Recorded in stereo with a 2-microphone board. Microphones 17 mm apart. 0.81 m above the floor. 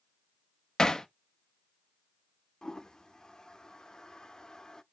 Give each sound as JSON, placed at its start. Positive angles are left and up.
{"t": 0.8, "sound": "hammering", "side_deg": 40, "distance_m": 0.8}
{"t": 2.6, "sound": "a toilet flushing", "side_deg": 40, "distance_m": 0.7}